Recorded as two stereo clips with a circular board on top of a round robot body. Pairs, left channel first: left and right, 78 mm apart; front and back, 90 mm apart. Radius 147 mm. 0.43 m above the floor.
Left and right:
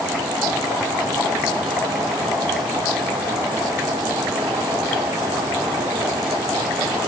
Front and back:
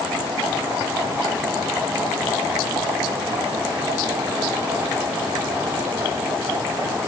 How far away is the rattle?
I don't hear a rattle.